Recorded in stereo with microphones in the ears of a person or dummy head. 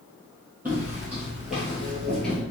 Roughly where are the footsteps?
Centre.